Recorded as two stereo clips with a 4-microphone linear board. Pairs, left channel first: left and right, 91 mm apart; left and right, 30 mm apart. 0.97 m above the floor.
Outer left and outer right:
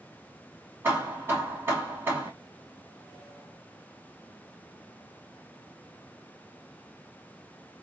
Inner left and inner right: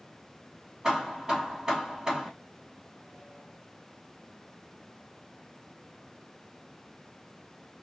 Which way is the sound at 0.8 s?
25° right (ahead or behind).